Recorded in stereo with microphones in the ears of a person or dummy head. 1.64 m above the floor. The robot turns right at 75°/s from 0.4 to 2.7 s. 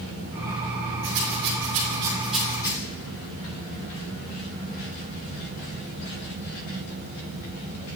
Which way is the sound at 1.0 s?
70° right (ahead or behind).